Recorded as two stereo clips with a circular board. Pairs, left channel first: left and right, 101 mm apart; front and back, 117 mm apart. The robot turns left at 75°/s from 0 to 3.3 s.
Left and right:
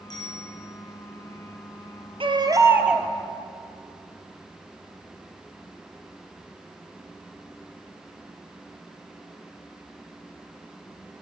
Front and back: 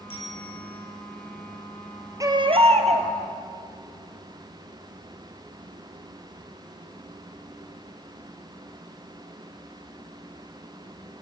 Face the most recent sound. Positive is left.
turn(degrees=160)